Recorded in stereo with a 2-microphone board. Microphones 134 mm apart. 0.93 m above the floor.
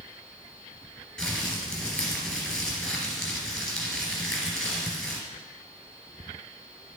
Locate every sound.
1.2 s crumpling: 5° left (ahead or behind), 2.5 m